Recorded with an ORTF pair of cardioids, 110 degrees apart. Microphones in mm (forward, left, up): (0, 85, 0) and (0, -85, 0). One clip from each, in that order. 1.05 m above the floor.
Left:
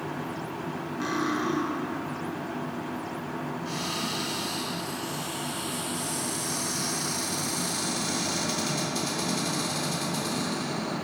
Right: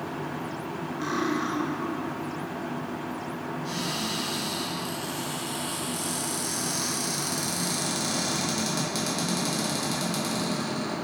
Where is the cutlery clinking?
Straight ahead, 0.7 m.